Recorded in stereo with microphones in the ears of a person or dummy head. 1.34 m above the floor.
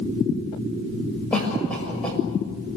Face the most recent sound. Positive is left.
turn(degrees=5)  # may be behind; listen again after turning